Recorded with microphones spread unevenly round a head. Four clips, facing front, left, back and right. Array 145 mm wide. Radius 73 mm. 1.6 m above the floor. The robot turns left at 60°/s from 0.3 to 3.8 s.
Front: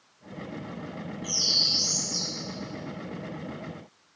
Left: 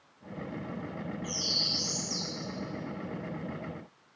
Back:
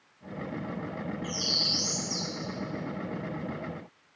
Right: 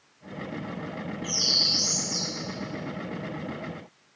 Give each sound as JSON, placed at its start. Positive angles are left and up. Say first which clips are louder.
{"t": 1.2, "sound": "a bird", "louder": "right 4 dB, back 2 dB", "azimuth_deg": -100, "distance_m": 1.5}